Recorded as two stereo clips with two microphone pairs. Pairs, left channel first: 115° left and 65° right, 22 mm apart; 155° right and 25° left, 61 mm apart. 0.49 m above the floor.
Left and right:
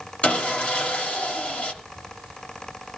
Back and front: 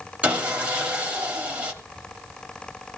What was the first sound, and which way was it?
Sawing, 95° left.